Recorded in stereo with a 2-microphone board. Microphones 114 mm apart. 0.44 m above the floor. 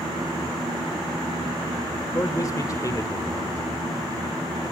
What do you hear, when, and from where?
2.1 s a man speaking: 30° left (ahead or behind), 1.2 m